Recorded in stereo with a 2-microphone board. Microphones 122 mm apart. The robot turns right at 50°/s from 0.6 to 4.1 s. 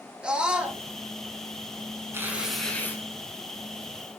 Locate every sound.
0.2 s a scream: 10° right (ahead or behind), 3 m; by 0.8 s 20° right (ahead or behind), 3 m
2.1 s tearing paper: 20° right, 6 m; by 3.0 s 25° left, 6 m